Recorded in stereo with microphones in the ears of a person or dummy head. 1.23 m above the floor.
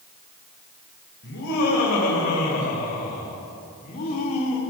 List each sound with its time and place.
1.2 s laughter: 50° left (ahead or behind), 6.5 m; by 4.6 s 30° left (ahead or behind), 3.5 m